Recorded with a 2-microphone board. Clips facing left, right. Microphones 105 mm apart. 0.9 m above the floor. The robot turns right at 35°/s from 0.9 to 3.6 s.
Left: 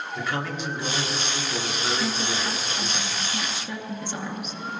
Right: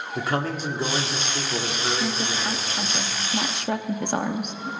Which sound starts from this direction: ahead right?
A man speaking, at 0.1 s.